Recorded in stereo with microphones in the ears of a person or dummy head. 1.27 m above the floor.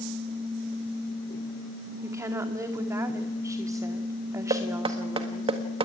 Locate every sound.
2.0 s a woman speaking: 15° right (ahead or behind), 2.5 m
4.5 s knocking: 25° right (ahead or behind), 1.7 m